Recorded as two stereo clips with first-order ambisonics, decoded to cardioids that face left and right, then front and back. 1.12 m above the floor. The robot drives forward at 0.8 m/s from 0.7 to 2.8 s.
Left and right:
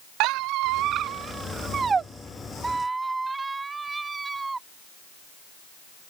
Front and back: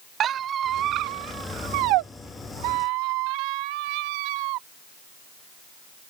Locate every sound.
0.2 s a squeak: 120° right; by 4.6 s 170° right